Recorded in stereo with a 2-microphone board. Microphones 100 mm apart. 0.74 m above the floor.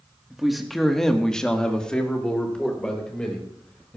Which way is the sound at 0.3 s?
5° right (ahead or behind).